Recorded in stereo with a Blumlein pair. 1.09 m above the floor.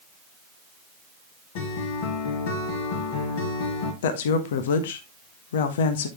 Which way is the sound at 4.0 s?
60° left.